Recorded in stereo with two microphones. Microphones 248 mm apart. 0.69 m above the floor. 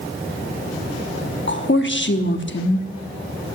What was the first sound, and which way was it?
A woman speaking, 50° left (ahead or behind).